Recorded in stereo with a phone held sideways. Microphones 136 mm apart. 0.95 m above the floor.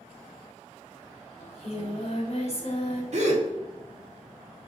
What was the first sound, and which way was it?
Singing, 45° left (ahead or behind).